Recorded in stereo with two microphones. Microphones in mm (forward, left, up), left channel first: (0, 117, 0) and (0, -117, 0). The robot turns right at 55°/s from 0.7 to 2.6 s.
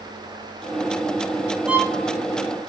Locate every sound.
1.7 s a violin: 5° right (ahead or behind), 0.7 m; by 1.9 s 20° right (ahead or behind), 0.7 m